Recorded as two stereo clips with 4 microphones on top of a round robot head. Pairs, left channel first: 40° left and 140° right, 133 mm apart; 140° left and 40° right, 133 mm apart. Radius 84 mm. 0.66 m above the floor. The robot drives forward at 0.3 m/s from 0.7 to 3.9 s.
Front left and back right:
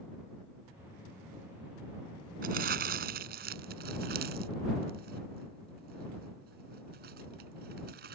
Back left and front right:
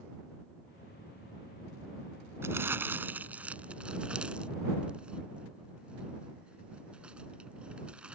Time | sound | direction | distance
2.4 | crumpling | 115° right | ?